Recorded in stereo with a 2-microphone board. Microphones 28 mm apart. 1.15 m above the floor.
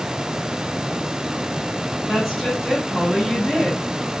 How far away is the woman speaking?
About 5.5 m.